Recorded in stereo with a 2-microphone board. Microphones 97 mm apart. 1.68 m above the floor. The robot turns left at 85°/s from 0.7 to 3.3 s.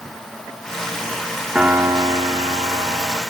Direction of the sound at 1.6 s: 10° right.